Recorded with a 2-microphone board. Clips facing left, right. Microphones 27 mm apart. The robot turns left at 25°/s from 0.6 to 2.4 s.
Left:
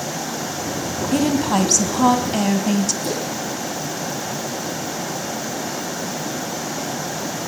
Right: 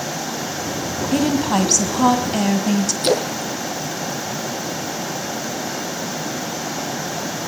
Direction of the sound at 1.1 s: 15° right (ahead or behind).